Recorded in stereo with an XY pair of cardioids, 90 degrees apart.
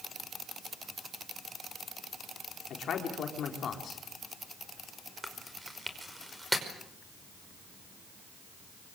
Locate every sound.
2.7 s a man speaking: 65° left, 4 m
5.2 s chewing: 5° right, 5.5 m